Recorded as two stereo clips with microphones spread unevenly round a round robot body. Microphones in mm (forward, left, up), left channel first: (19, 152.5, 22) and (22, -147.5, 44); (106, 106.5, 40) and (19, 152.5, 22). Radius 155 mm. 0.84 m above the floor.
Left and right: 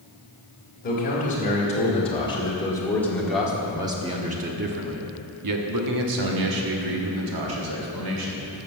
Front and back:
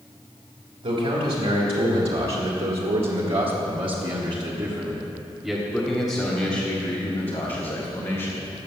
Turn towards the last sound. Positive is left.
turn(degrees=-80)